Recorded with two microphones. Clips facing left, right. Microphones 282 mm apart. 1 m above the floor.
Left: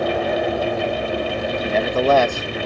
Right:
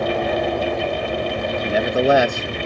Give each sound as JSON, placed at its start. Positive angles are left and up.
{"t": 1.6, "sound": "a man speaking", "side_deg": -10}